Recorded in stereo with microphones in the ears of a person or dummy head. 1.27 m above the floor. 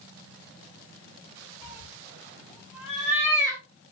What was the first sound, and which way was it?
A cat meowing, 10° left (ahead or behind).